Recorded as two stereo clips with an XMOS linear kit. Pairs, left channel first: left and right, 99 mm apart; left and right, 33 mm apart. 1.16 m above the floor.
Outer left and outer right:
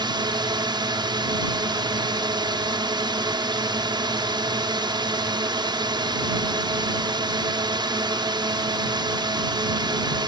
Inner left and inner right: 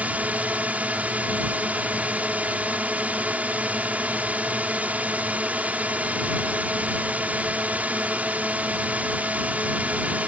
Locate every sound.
0.0 s a drone: 50° right (ahead or behind)